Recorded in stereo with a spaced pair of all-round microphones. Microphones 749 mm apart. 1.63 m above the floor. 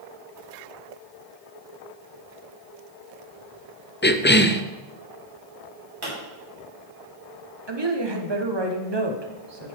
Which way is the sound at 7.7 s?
35° right (ahead or behind).